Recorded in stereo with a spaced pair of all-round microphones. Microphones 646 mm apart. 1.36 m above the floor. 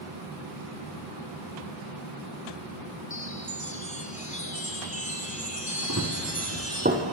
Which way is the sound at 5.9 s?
25° right (ahead or behind).